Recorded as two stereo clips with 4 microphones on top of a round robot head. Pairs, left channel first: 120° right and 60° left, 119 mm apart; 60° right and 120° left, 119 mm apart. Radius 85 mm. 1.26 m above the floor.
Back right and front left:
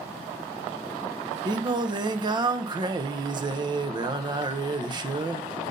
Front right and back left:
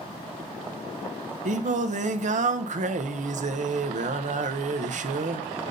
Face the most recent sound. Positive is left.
turn(degrees=110)